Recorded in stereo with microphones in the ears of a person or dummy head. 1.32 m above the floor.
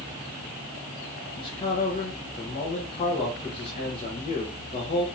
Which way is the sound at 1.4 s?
30° left (ahead or behind).